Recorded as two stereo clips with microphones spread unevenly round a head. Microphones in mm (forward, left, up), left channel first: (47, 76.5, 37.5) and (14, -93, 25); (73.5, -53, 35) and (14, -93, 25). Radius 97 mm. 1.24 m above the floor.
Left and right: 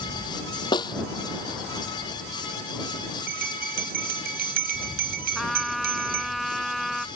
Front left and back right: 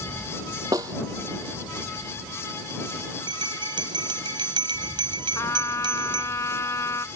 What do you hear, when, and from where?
0.7 s a snare drum: 150° left
3.3 s a bell: 145° right
5.3 s a trumpet: 10° right